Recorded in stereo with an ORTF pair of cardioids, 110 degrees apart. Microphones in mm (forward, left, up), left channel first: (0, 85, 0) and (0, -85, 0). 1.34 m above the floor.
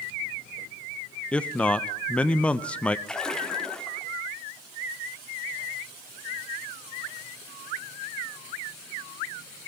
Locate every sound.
1.3 s a man speaking: 5° left, 1.0 m
3.1 s a splash: 5° left, 2.5 m